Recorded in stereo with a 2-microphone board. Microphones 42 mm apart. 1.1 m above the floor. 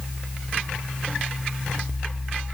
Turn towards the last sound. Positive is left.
No sound to turn to.